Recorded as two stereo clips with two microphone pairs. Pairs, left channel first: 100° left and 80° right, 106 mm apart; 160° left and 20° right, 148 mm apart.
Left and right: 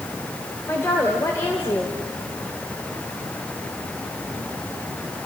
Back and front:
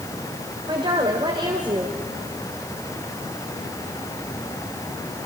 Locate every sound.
0.7 s a woman speaking: 35° left, 2.5 m